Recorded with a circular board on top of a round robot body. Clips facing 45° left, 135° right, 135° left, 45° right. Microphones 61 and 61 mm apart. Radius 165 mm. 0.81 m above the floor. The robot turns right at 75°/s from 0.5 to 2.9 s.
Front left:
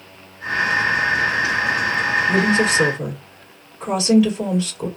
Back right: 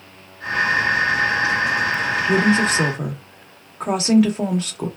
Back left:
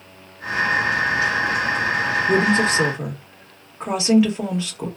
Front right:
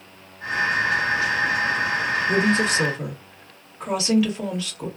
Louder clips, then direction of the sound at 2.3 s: Back right 2 dB, back left 3 dB; 150° left.